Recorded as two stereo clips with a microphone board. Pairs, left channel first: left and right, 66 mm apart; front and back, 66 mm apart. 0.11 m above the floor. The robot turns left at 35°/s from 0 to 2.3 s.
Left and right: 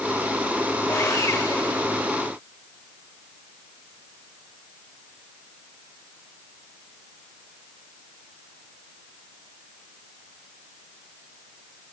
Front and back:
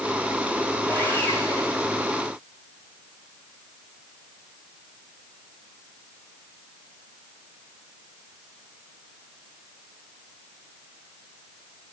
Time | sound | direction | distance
0.9 | sawing | 70° left | 7 m